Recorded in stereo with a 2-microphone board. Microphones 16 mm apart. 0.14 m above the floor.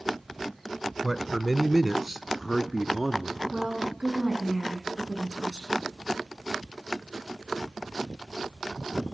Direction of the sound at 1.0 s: 10° left (ahead or behind).